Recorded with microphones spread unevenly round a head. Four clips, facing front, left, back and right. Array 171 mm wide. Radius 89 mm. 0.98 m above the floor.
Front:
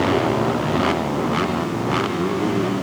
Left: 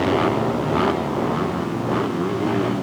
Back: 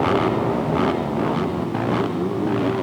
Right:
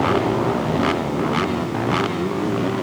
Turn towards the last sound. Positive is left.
No sound to turn to.